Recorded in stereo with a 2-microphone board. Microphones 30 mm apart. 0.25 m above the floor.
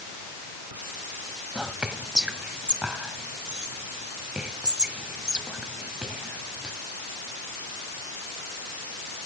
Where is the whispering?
25° right (ahead or behind), 1.6 m.